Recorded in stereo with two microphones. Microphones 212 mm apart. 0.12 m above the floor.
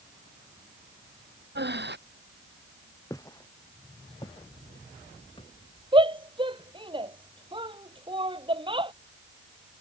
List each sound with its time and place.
1.6 s breathing: 55° right (ahead or behind)
3.1 s footsteps: 15° left (ahead or behind); by 5.5 s 25° left (ahead or behind)
5.9 s a shout: 25° right (ahead or behind)